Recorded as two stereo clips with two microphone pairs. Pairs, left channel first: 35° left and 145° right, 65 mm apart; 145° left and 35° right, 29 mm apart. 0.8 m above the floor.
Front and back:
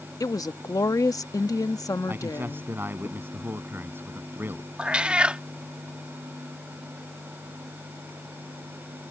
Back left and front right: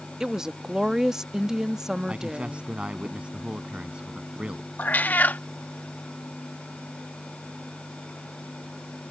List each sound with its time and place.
0.2 s a woman speaking: 35° left
2.1 s a man speaking: 90° right
4.8 s a cat meowing: 140° left